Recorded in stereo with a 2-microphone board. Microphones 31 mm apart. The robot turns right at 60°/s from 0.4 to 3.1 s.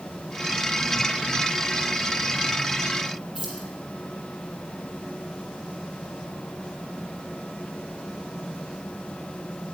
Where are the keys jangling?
30° right (ahead or behind), 5 m.